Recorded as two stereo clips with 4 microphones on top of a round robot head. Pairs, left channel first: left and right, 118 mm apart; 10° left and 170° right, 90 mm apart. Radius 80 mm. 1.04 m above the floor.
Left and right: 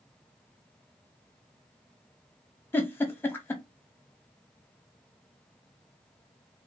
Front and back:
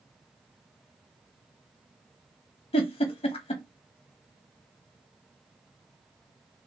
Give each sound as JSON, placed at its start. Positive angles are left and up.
{"t": 2.7, "sound": "a giggle", "azimuth_deg": 15, "distance_m": 0.8}